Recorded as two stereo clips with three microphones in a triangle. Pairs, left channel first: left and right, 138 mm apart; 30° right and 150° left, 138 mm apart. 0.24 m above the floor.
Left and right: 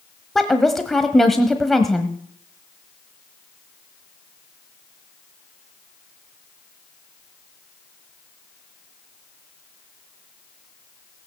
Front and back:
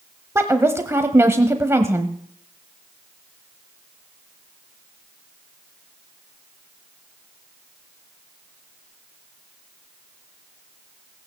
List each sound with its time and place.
0.3 s a woman speaking: 175° left, 1.0 m